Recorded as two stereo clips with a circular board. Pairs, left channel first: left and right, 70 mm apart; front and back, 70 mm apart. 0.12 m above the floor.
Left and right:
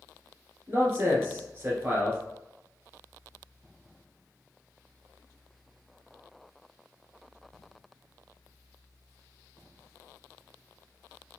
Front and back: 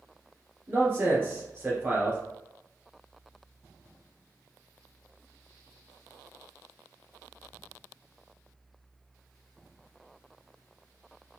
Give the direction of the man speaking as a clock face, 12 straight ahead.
4 o'clock.